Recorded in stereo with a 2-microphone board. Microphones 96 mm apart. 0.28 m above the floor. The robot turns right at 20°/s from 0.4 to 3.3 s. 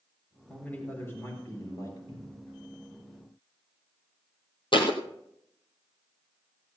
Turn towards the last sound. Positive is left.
turn(degrees=60)  # may be behind; listen again after turning